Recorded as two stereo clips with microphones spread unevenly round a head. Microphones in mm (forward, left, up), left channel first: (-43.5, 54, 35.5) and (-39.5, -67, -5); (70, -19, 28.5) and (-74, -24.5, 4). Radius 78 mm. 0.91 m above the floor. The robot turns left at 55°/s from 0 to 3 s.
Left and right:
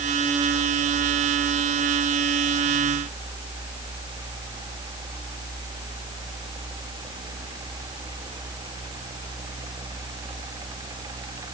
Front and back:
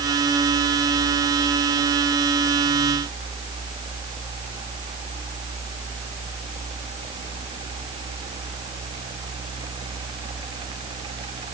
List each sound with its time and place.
Only background noise.